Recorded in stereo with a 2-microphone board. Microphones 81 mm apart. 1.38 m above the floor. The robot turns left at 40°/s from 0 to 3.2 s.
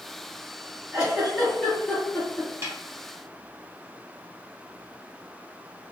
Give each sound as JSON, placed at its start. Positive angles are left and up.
{"t": 0.9, "sound": "a giggle", "side_deg": -20, "distance_m": 1.9}
{"t": 2.6, "sound": "a snare drum", "side_deg": -35, "distance_m": 0.9}